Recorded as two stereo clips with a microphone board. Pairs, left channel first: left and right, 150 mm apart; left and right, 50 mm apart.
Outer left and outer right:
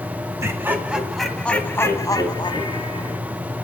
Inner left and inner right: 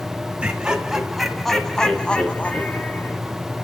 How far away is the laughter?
About 2 m.